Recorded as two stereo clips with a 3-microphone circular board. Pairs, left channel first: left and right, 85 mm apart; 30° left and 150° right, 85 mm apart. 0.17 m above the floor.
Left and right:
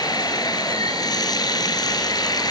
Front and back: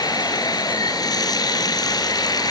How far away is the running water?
About 2 m.